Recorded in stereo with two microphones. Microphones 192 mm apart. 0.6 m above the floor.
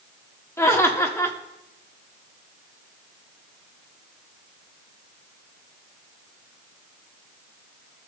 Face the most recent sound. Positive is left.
turn(degrees=15)  # may be behind; listen again after turning